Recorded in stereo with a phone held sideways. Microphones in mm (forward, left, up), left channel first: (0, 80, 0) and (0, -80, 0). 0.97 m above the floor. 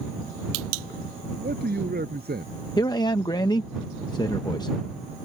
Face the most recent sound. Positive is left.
turn(degrees=25)  # may be behind; listen again after turning